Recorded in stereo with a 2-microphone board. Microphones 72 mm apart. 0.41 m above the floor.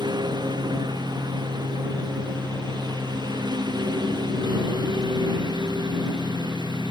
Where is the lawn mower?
85° right; by 6.9 s 80° right.